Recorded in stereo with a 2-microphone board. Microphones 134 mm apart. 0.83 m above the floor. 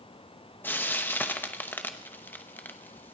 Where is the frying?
15° left (ahead or behind), 0.8 m.